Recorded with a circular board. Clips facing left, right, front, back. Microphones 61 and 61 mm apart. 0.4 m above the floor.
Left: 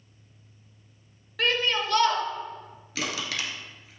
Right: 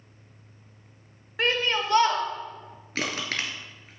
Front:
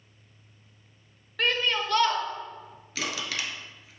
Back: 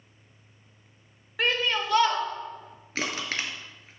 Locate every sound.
1.4 s a shout: 115° right, 0.9 m
3.0 s crushing: 130° right, 1.0 m